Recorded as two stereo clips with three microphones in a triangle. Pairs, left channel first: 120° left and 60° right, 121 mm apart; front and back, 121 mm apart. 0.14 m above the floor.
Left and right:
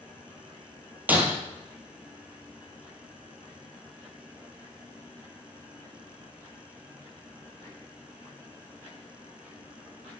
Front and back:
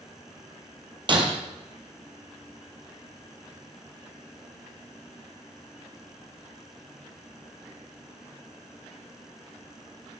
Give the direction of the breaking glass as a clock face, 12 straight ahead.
5 o'clock.